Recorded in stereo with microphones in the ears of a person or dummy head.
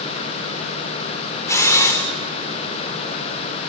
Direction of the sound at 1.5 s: 10° left (ahead or behind).